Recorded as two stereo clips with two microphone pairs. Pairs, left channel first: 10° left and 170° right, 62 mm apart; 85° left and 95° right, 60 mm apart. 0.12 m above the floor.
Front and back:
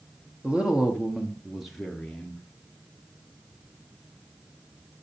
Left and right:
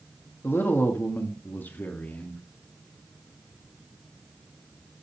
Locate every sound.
0.4 s a woman speaking: 120° left, 1.9 m; by 2.4 s 75° left, 1.4 m